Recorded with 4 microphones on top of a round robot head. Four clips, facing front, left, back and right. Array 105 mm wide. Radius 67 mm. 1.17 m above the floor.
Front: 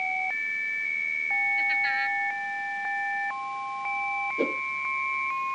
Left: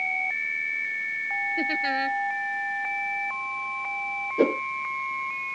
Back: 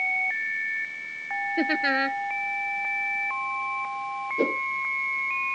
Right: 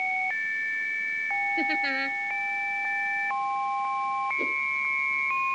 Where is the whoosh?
100° left.